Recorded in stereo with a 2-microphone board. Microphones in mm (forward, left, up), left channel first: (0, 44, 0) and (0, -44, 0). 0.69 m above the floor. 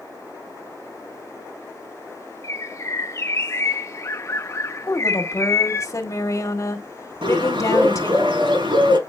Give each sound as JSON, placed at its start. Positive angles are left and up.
{"t": 2.4, "sound": "a bird", "side_deg": 35, "distance_m": 0.7}
{"t": 4.9, "sound": "a woman speaking", "side_deg": 40, "distance_m": 2.0}
{"t": 7.2, "sound": "a bird", "side_deg": -75, "distance_m": 6.0}